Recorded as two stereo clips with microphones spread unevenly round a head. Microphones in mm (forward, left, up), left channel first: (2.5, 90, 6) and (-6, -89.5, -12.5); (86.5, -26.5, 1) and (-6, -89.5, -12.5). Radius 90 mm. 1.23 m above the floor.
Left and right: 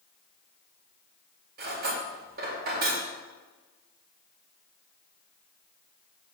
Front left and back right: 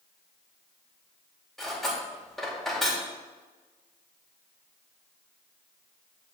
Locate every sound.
1.6 s cutlery clinking: 50° right, 2.5 m